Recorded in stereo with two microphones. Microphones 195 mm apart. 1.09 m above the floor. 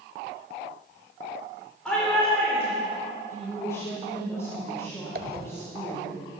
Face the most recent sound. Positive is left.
turn(degrees=-50)  # may be behind; listen again after turning